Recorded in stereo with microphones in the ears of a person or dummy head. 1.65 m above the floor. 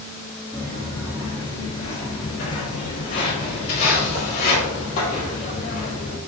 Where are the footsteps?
10° left (ahead or behind), 1.6 m; by 6.2 s 65° left (ahead or behind), 3.5 m.